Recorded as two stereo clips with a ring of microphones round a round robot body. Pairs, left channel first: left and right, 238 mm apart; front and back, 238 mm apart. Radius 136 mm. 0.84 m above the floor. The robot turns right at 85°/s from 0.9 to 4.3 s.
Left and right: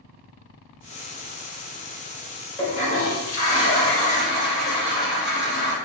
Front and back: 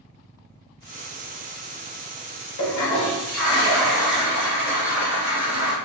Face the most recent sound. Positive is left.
turn(degrees=165)